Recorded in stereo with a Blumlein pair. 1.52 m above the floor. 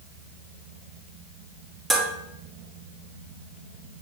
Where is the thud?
I don't hear a thud.